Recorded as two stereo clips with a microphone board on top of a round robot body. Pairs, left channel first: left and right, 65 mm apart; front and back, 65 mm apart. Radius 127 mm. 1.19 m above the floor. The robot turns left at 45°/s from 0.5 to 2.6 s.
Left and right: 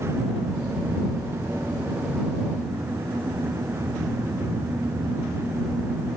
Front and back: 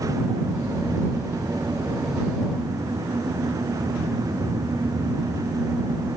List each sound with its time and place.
Only background noise.